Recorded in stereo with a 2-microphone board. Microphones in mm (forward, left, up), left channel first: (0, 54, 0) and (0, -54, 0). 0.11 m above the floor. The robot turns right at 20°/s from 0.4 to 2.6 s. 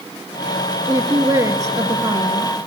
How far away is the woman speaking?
About 1.2 m.